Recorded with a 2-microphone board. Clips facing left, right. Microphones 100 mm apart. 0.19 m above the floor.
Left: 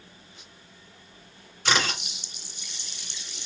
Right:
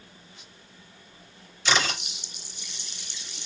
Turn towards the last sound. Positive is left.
turn(degrees=50)  # may be behind; listen again after turning